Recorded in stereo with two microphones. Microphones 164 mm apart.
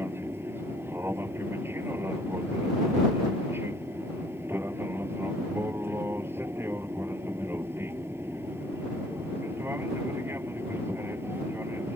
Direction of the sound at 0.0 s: 15° right (ahead or behind).